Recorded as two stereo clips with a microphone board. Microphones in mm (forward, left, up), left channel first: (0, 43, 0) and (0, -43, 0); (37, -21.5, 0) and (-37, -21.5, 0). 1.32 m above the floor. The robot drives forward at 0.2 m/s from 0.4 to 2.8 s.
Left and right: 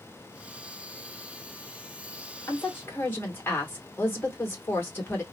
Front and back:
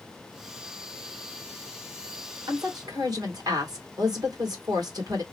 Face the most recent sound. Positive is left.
turn(degrees=155)